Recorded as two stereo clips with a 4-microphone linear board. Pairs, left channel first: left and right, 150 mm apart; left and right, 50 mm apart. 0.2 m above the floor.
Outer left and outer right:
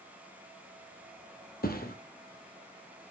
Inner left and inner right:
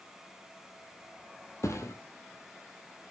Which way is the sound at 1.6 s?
75° left (ahead or behind).